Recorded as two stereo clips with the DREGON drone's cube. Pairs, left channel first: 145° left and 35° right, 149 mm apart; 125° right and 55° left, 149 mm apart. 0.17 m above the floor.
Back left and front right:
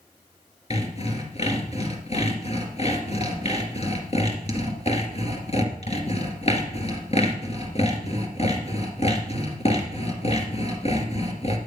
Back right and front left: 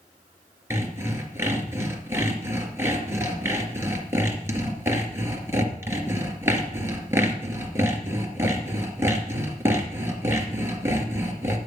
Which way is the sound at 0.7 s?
125° left.